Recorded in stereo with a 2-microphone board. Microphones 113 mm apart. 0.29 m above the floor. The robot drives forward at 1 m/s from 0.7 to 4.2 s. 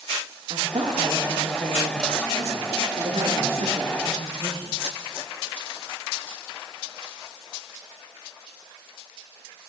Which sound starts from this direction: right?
A woman speaking, at 0.5 s.